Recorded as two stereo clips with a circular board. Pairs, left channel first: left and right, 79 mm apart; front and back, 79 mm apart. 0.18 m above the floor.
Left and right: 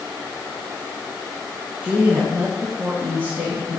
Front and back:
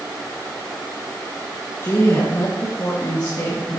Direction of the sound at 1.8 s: 35° right.